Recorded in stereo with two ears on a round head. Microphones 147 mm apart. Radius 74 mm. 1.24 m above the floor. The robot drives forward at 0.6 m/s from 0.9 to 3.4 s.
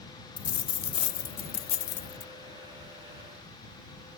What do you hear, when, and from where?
0.4 s a dropped coin: 30° left (ahead or behind); by 2.3 s 50° left (ahead or behind)